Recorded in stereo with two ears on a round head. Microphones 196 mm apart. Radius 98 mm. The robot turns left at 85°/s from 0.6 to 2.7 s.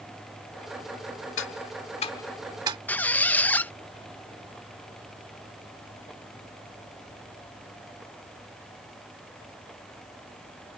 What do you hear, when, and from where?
1.4 s ticking: 60° left (ahead or behind); by 2.8 s 20° right (ahead or behind)
2.9 s a squeak: 10° left (ahead or behind)